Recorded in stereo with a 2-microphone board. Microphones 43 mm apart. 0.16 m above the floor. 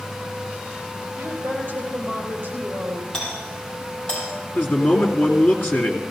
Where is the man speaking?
55° left (ahead or behind), 2.5 m.